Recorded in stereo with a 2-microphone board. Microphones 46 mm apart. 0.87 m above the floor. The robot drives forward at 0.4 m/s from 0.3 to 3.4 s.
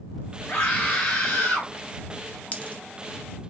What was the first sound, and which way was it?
A scream, 40° left (ahead or behind).